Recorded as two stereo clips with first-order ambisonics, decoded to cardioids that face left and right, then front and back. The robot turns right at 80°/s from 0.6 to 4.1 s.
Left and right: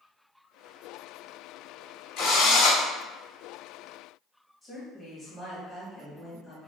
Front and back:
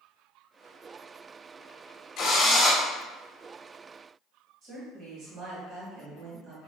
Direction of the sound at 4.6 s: 170° right.